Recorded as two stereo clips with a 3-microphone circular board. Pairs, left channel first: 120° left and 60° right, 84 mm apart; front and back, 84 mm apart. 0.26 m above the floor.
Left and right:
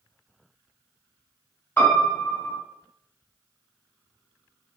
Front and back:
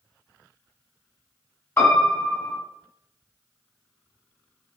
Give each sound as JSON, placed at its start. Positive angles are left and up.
{"t": 1.8, "sound": "a piano", "azimuth_deg": 60, "distance_m": 1.6}